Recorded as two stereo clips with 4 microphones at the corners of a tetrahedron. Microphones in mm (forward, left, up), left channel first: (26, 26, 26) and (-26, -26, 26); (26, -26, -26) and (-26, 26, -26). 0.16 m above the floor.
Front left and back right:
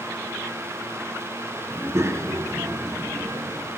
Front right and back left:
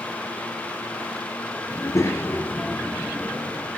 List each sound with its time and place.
1.7 s a child speaking: 75° right, 1.9 m; by 3.7 s 120° right, 3.5 m